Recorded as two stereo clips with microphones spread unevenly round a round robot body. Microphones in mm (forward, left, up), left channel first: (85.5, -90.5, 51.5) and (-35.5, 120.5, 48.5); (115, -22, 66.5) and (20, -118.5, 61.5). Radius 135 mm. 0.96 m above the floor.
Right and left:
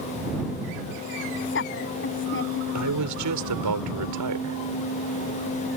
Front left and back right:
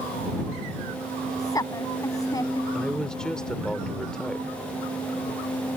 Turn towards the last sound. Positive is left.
turn(degrees=130)